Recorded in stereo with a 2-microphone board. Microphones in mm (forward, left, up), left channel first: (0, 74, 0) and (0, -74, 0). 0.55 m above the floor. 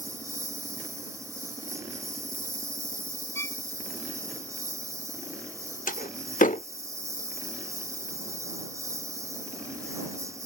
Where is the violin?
20° left (ahead or behind).